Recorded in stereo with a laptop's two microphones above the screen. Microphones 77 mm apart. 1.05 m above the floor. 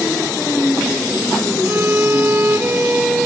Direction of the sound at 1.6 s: 25° right (ahead or behind).